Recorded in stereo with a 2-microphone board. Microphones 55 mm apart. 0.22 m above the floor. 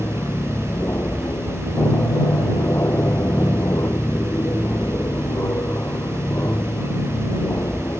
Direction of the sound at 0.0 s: 60° left (ahead or behind).